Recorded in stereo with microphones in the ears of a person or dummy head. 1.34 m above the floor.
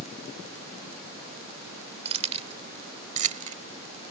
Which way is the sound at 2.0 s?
35° right (ahead or behind).